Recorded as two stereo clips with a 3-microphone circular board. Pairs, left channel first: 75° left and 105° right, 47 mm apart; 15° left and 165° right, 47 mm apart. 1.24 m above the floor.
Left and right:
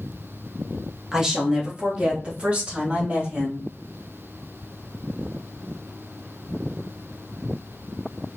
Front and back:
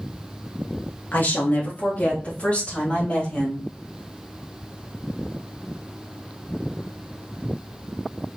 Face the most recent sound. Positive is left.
turn(degrees=-50)